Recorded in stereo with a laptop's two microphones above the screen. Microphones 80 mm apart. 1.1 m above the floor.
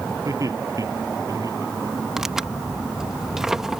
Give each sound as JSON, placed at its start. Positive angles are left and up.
{"t": 0.2, "sound": "laughter", "side_deg": -45}
{"t": 2.2, "sound": "tearing paper", "side_deg": -5}